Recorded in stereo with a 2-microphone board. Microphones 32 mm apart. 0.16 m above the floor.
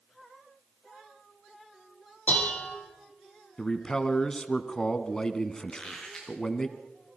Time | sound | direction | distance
2.3 | dishes clattering | 55° left (ahead or behind) | 3.5 m
3.6 | a man speaking | 20° left (ahead or behind) | 1.1 m
5.7 | a squeak | 15° left (ahead or behind) | 4 m